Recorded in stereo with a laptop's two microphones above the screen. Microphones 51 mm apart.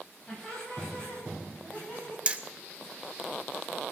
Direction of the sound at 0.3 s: 15° left (ahead or behind).